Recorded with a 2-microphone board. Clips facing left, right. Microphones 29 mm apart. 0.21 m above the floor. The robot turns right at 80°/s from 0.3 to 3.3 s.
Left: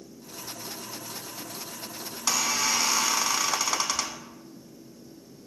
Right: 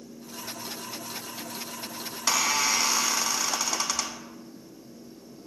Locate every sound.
2.1 s a squeak: 65° right, 0.8 m; by 4.3 s 30° left, 0.8 m